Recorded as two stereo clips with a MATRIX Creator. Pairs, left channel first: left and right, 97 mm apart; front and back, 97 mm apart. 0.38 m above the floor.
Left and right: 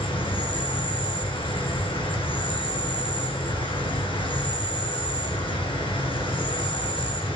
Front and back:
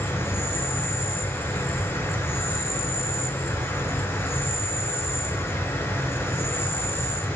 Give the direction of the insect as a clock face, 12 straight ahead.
10 o'clock.